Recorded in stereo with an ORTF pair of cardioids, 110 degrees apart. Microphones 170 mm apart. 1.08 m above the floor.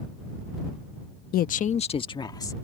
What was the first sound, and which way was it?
A woman speaking, 65° left.